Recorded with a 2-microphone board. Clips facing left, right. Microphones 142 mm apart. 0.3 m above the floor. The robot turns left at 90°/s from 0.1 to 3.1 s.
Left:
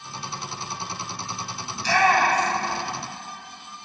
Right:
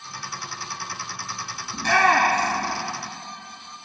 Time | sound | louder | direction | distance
1.7 | a shout | even | 50° right (ahead or behind) | 3 m